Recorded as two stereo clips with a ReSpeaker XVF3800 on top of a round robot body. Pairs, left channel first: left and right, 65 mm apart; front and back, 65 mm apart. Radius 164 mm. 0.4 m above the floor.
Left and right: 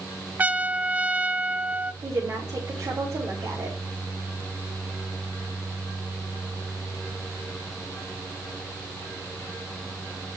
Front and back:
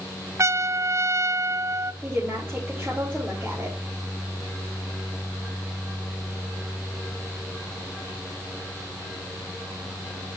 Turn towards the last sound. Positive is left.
turn(degrees=-120)